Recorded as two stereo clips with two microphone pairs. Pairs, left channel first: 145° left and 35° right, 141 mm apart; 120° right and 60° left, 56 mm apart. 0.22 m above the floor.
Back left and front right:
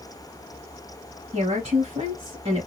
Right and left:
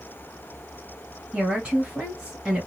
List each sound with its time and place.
1.3 s a woman speaking: 10° right, 2.0 m